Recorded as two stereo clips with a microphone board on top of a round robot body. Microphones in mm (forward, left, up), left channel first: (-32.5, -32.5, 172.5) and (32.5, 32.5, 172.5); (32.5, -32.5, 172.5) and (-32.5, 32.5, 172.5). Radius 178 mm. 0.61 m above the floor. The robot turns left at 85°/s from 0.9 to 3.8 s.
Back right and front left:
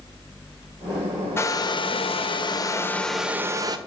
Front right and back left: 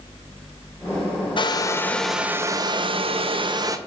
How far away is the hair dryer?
About 0.7 m.